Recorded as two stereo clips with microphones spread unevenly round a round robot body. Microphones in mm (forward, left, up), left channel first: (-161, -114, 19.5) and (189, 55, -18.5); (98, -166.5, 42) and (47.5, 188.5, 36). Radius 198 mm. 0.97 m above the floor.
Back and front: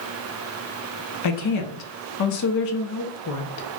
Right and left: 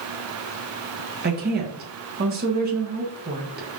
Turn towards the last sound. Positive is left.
turn(degrees=160)